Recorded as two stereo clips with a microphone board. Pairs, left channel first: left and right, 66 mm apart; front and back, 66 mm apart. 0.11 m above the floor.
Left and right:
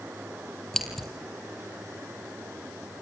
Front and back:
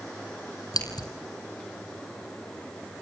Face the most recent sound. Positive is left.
turn(degrees=5)